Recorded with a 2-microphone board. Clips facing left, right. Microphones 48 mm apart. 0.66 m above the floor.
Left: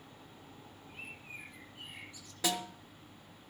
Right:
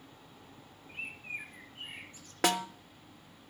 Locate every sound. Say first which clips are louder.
0.9 s a bird: right 7 dB; 50° right (ahead or behind), 2 m
2.4 s a snare drum: right 6 dB; 60° right (ahead or behind), 0.5 m